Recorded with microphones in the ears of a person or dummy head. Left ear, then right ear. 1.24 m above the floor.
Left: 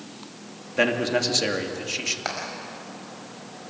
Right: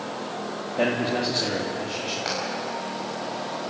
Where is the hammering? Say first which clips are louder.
Right 2 dB; 35° left (ahead or behind), 5 m.